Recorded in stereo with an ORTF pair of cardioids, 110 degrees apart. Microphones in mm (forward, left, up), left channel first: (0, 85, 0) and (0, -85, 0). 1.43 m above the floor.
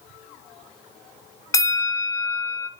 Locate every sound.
1.5 s a bell: 20° left, 0.8 m